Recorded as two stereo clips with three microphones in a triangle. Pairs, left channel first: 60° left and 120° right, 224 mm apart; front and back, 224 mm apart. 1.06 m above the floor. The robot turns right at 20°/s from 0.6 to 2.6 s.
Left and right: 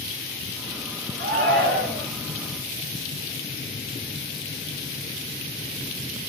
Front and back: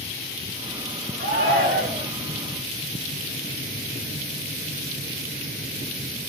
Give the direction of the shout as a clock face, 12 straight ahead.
5 o'clock.